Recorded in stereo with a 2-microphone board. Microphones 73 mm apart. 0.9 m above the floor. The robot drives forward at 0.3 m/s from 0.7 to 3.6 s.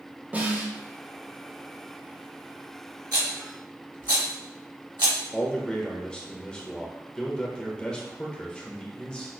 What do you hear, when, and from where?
0.3 s a snare drum: 20° right (ahead or behind), 0.9 m
3.1 s a rattle: 70° right (ahead or behind), 1.3 m; by 5.2 s 80° right, 1.3 m
5.3 s a man speaking: 10° left (ahead or behind), 1.0 m